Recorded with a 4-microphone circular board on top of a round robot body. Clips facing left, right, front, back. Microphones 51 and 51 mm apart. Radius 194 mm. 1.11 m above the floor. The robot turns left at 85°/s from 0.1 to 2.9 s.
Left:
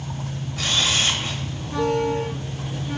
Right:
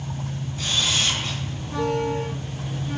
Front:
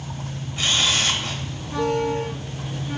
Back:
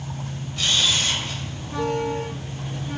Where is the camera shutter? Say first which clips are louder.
Left 2 dB, front 1 dB; 70° left, 0.7 m; by 1.4 s straight ahead, 0.7 m.